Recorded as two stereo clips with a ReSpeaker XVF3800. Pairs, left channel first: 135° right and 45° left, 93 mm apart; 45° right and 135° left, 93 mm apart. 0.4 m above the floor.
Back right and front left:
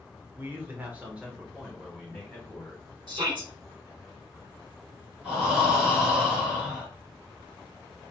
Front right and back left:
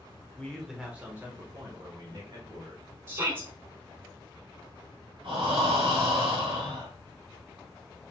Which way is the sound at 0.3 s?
15° left.